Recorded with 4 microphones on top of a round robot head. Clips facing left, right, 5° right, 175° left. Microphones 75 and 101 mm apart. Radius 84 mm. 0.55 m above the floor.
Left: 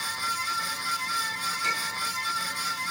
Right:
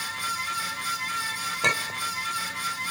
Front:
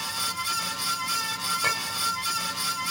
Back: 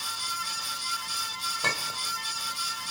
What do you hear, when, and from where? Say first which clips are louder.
1.6 s a clink: right 6 dB, front 2 dB; 95° right, 1.3 m